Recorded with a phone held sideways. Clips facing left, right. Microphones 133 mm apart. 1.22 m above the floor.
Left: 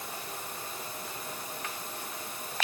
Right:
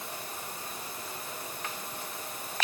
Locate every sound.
Only background noise.